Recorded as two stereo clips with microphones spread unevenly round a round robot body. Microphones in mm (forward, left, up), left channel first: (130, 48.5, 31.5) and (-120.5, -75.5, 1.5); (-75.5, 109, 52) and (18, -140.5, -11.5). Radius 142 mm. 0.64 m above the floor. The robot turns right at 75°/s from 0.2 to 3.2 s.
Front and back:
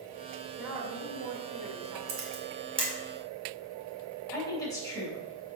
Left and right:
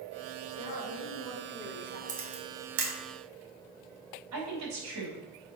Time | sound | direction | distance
0.6 | a woman speaking | 115° left | 2.0 m
2.1 | a camera shutter | 140° right | 2 m
4.3 | a woman speaking | 55° right | 3.5 m